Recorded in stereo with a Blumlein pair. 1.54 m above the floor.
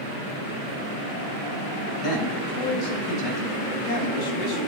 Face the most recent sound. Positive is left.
turn(degrees=30)